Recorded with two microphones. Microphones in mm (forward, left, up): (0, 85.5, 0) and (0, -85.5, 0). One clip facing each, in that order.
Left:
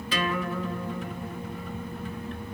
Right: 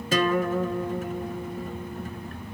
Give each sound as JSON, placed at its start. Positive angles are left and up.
{"t": 0.1, "sound": "a guitar", "side_deg": -45, "distance_m": 0.7}